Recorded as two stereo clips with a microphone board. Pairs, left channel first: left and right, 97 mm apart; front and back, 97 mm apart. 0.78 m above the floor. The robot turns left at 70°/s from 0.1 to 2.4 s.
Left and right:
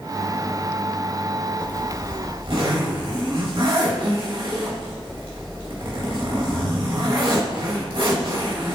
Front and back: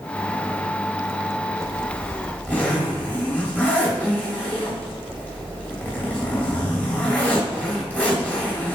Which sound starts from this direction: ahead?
A zipper, at 1.6 s.